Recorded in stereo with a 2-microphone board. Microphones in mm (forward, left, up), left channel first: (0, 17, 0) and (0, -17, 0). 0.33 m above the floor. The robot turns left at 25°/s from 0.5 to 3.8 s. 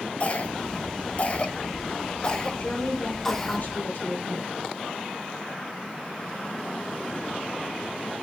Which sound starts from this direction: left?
A cough, at 0.2 s.